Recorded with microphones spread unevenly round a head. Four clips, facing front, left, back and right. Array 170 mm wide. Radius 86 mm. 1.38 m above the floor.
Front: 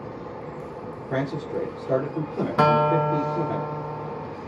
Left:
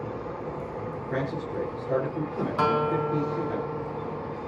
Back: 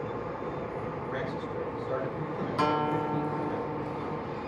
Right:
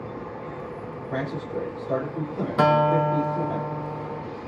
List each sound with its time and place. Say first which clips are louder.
1.1 s a man speaking: right 2 dB, front 11 dB; 15° left, 4.5 m
2.6 s a guitar: right 6 dB, front 9 dB; 45° right, 1.9 m